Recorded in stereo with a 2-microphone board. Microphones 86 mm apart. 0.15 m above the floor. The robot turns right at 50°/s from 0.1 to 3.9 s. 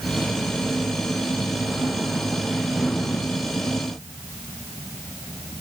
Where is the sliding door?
No sliding door in this recording.